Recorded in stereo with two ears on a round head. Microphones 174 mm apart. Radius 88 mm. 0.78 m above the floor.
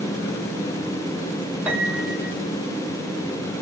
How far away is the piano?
About 1.5 m.